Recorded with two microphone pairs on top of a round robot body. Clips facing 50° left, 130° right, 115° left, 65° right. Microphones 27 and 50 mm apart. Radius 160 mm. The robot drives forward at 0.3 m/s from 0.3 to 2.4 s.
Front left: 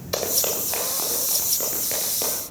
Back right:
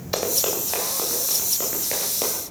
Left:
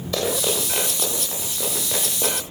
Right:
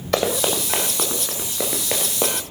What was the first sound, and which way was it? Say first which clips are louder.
Running footsteps: back right 1 dB, right 3 dB; 55° right.